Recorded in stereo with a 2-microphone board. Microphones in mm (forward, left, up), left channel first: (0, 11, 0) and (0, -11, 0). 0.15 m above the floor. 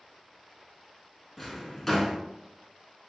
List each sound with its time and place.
1.4 s a drawer: 10° left (ahead or behind), 0.5 m